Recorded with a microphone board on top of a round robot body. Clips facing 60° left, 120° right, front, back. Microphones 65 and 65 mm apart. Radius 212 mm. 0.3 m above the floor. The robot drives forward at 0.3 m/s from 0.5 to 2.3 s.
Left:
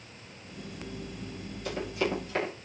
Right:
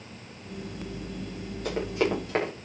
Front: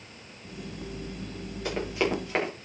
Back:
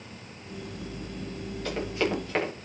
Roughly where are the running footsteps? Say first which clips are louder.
Right 4 dB, front 1 dB; right.